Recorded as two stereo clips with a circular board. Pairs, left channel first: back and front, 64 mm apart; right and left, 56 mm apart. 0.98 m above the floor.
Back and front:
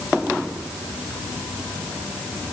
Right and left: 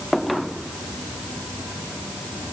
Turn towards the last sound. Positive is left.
No sound to turn to.